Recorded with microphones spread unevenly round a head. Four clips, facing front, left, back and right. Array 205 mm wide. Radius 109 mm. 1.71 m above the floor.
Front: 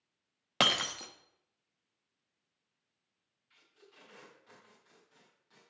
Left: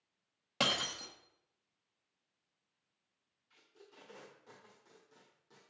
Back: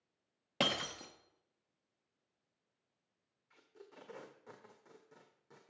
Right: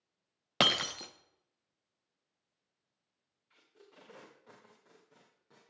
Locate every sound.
0.6 s breaking glass: 70° right, 0.8 m
3.5 s tape being pulled: 160° right, 1.2 m